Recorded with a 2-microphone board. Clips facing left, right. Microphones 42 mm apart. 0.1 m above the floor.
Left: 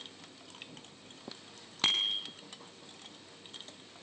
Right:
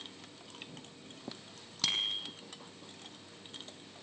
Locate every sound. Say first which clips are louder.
1.8 s a bicycle bell: left 3 dB; 35° left (ahead or behind), 2.5 m